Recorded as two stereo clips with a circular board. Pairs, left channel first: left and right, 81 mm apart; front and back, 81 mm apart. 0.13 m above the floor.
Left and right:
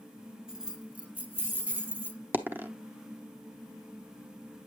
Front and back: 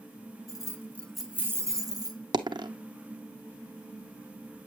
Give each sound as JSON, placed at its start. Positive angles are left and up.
{"t": 0.5, "sound": "keys jangling", "azimuth_deg": -10, "distance_m": 1.3}
{"t": 2.3, "sound": "a dropped coin", "azimuth_deg": -155, "distance_m": 0.8}